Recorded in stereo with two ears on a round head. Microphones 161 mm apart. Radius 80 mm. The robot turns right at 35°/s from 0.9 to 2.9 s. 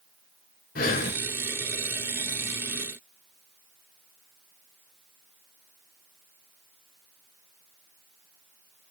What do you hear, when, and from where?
0.8 s breathing: 55° left (ahead or behind), 1.9 m